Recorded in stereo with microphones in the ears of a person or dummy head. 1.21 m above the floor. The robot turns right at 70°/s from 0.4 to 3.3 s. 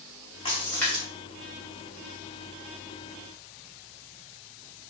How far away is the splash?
About 1.3 m.